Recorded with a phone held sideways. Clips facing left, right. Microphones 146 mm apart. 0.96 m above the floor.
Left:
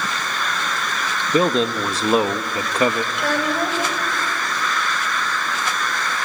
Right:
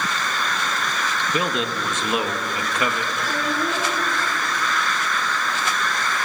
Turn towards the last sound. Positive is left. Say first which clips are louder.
# left 4 dB
turn(degrees=80)